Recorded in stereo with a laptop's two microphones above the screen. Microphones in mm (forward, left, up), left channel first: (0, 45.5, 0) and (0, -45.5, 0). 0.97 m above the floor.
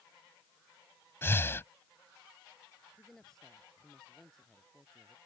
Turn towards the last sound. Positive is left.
turn(degrees=5)  # may be behind; listen again after turning